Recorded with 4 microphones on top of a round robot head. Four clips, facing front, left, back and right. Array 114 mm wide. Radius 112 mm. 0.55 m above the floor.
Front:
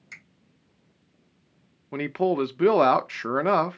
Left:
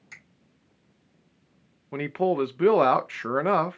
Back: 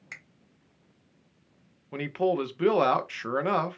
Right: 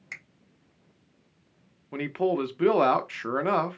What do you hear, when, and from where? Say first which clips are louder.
0.1 s a finger snap: right 6 dB, back 1 dB; 130° right, 3 m
1.9 s a man speaking: left 2 dB, front 2 dB; 35° left, 0.8 m